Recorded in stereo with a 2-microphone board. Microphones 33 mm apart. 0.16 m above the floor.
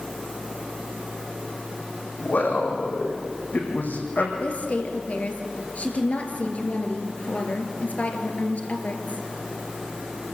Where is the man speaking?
60° left (ahead or behind), 7 m; by 4.3 s 70° left (ahead or behind), 6.5 m.